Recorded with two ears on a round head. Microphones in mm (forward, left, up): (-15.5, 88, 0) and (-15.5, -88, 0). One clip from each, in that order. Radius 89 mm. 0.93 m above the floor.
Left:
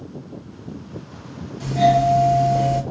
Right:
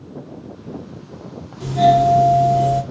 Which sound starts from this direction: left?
A doorbell, at 1.6 s.